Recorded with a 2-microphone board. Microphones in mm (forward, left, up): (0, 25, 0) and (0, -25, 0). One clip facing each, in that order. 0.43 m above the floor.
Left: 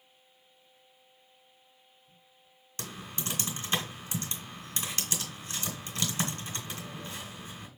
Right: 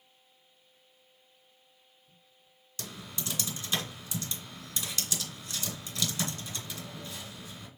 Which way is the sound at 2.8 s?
35° left (ahead or behind).